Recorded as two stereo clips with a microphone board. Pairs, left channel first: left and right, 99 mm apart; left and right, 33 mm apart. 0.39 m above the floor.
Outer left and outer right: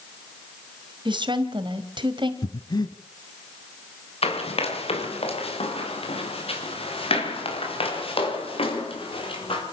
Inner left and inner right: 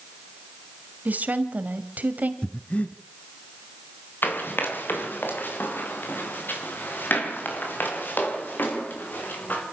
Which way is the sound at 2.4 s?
45° left (ahead or behind).